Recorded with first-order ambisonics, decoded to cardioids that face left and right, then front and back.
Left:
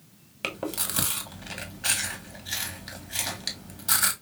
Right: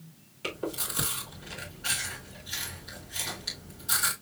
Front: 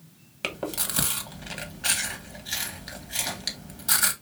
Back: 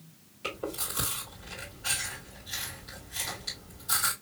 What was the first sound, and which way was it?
Chewing, 40° left.